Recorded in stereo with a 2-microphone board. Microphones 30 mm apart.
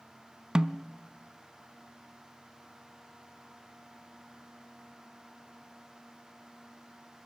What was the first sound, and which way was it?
A snare drum, 25° right (ahead or behind).